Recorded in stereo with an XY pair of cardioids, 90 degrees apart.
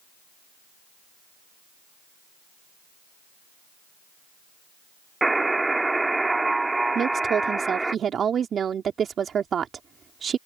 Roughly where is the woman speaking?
Ahead right.